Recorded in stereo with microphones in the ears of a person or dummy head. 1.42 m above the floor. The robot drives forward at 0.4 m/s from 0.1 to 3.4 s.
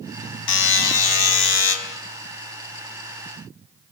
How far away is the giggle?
I don't hear a giggle.